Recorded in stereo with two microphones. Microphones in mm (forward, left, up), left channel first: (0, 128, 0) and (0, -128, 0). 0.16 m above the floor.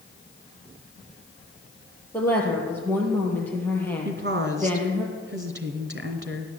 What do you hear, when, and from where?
2.1 s a woman speaking: 10° left (ahead or behind), 4.5 m
4.0 s a woman speaking: 45° right (ahead or behind), 1.9 m